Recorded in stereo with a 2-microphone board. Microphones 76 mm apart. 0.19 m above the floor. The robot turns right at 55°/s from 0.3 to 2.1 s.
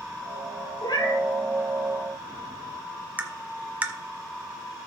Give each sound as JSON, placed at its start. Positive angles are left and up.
{"t": 0.8, "sound": "a cat meowing", "side_deg": 75, "distance_m": 2.0}
{"t": 3.2, "sound": "tapping", "side_deg": -20, "distance_m": 1.0}